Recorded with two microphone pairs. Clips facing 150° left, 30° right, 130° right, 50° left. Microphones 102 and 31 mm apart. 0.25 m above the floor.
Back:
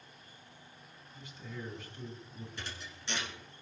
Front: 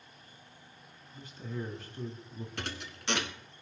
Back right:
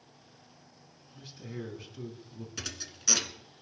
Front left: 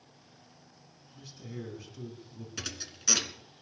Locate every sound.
1.1 s a man speaking: 65° right, 2.5 m
2.6 s a thud: 35° right, 1.1 m